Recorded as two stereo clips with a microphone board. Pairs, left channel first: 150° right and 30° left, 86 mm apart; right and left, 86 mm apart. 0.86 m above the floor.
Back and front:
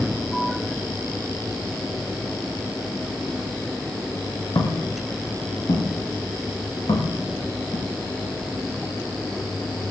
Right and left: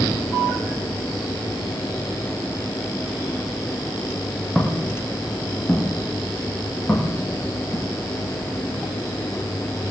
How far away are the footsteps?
About 5.5 m.